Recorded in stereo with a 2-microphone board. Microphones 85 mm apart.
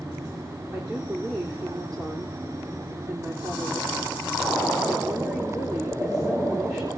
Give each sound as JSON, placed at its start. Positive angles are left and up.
{"t": 0.7, "sound": "a woman speaking", "side_deg": -40, "distance_m": 4.5}